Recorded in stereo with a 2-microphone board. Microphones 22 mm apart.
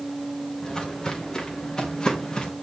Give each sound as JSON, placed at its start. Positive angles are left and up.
{"t": 0.6, "sound": "footsteps", "side_deg": 30, "distance_m": 4.5}